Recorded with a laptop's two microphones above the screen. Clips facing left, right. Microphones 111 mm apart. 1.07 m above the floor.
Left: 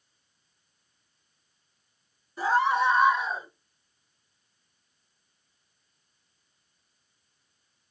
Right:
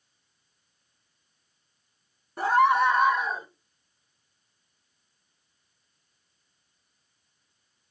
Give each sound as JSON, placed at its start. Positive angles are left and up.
{"t": 2.4, "sound": "a scream", "side_deg": -60, "distance_m": 1.3}